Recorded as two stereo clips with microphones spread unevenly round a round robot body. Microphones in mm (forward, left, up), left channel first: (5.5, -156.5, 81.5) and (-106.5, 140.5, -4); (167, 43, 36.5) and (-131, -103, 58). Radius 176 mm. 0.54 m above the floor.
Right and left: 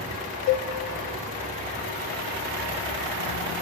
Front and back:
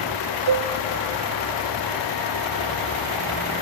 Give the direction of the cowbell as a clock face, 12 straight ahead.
4 o'clock.